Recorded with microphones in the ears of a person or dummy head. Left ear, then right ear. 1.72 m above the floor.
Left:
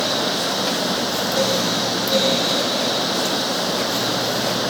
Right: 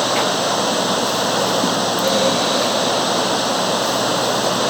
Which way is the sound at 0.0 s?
25° right (ahead or behind).